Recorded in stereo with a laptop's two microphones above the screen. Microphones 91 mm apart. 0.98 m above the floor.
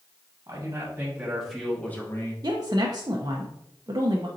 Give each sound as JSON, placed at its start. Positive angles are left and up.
{"t": 0.5, "sound": "a man speaking", "side_deg": -40, "distance_m": 1.3}
{"t": 2.4, "sound": "a woman speaking", "side_deg": -45, "distance_m": 0.6}